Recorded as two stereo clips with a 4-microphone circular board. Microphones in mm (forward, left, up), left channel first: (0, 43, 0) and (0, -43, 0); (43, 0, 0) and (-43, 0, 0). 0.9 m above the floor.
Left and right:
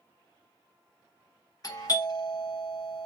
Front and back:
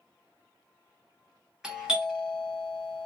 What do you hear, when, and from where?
1.6 s a doorbell: 105° left, 0.9 m